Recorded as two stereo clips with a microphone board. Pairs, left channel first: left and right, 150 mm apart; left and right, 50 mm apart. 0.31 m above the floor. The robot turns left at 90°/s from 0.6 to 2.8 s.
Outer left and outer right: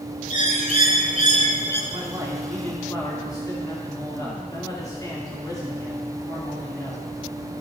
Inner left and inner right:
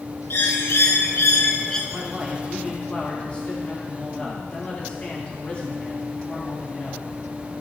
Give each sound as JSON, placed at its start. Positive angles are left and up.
{"t": 0.3, "sound": "a bird", "azimuth_deg": 120, "distance_m": 0.9}
{"t": 1.9, "sound": "a man speaking", "azimuth_deg": -125, "distance_m": 2.5}